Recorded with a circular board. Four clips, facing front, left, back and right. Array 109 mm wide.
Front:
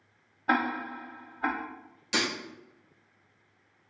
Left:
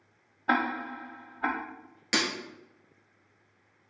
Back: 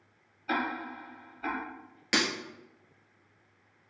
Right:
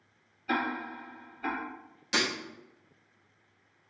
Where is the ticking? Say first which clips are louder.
Left 4 dB, front 4 dB; 50° left, 0.6 m.